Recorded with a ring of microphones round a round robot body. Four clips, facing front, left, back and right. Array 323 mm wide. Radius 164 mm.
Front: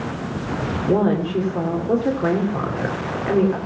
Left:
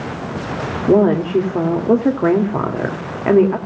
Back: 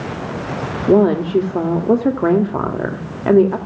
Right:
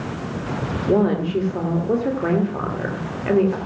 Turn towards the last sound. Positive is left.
turn(degrees=135)